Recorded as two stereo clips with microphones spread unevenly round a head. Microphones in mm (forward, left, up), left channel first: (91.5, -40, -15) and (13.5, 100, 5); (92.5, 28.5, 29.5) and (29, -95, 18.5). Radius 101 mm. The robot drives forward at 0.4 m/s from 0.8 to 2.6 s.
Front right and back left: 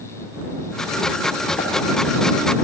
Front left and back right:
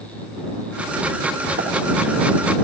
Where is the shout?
I don't hear a shout.